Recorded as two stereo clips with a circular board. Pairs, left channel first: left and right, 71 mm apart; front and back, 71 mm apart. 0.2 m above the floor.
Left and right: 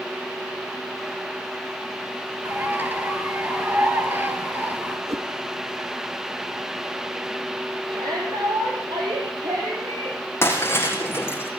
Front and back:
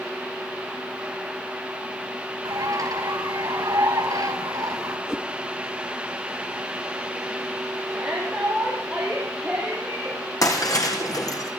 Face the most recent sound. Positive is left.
turn(degrees=35)